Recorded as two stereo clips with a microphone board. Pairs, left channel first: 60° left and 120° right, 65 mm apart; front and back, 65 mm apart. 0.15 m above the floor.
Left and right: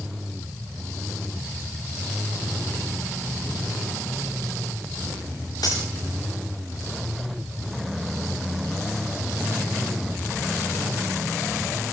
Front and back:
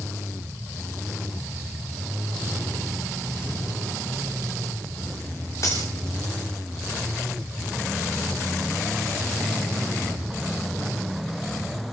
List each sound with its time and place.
5.6 s cutlery clinking: 40° left, 10 m